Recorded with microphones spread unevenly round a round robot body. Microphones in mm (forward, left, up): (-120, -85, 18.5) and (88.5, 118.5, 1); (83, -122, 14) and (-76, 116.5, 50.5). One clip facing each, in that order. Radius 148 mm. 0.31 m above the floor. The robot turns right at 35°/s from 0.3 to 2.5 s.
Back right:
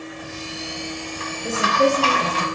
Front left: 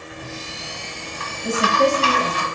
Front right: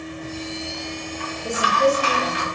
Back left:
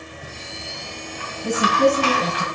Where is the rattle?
45° left, 2 m; by 2.4 s 120° left, 2 m.